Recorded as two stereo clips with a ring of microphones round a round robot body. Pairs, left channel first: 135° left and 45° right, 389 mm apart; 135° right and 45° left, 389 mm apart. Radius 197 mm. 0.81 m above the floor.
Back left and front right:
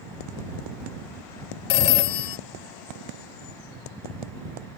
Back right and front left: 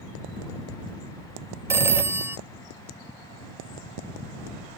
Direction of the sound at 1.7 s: 130° left.